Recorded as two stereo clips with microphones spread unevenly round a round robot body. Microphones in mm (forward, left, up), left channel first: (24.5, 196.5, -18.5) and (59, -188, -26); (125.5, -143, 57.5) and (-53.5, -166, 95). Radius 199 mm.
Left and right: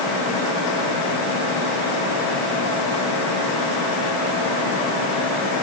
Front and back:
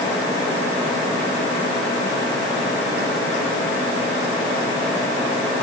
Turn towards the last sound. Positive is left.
No sound to turn to.